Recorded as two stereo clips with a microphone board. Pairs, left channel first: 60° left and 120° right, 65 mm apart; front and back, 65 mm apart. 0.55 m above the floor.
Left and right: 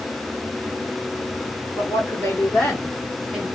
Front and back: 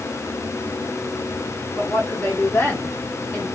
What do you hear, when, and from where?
1.8 s a woman speaking: 40° left, 1.5 m; by 3.5 s 50° right, 1.3 m